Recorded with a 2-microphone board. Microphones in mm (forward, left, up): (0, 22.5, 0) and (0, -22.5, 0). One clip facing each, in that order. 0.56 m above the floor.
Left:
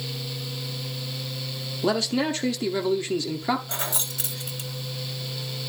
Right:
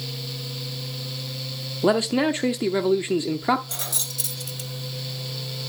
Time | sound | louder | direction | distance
1.8 | a man speaking | right 4 dB | 20° right (ahead or behind) | 0.8 m
3.7 | keys jangling | left 3 dB | 25° left (ahead or behind) | 1.9 m